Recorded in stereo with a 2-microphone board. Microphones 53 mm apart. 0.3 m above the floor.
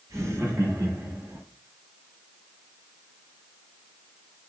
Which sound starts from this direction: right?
Laughter, at 0.1 s.